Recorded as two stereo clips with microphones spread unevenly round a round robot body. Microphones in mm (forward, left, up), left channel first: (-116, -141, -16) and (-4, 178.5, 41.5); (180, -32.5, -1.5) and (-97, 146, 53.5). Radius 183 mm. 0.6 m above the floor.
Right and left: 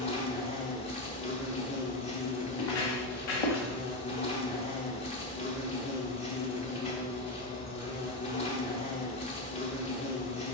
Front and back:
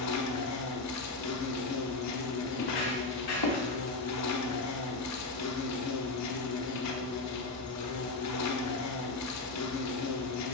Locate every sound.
0.0 s an insect: 45° right, 1.1 m
2.5 s footsteps: 70° right, 3.5 m; by 3.7 s 90° right, 3 m